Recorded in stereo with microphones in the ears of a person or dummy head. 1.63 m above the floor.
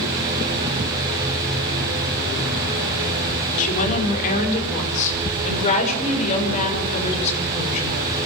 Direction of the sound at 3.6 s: 45° left (ahead or behind).